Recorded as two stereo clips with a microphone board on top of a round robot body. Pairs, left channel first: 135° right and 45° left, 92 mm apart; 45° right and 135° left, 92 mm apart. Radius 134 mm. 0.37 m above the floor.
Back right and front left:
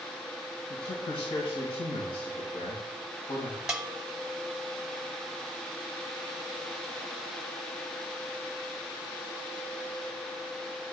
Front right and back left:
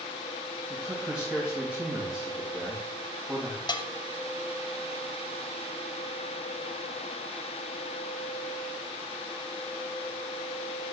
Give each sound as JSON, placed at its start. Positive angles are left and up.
{"t": 0.7, "sound": "a man speaking", "azimuth_deg": -145, "distance_m": 2.5}
{"t": 3.7, "sound": "a bell", "azimuth_deg": -35, "distance_m": 1.0}